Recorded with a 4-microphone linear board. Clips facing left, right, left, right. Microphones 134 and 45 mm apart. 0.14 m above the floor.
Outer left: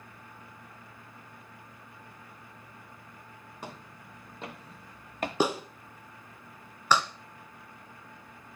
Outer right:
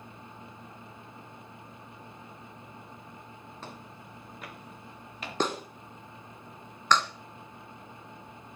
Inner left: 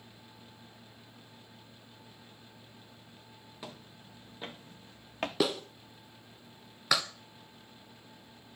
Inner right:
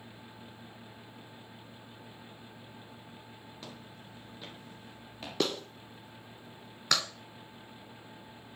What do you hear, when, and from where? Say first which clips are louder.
3.6 s footsteps: outer left 3 dB, inner left 3 dB; 15° left (ahead or behind), 3 m; by 5.3 s 55° left (ahead or behind), 1.7 m
5.4 s a clap: outer left 2 dB, even; 10° left (ahead or behind), 1.0 m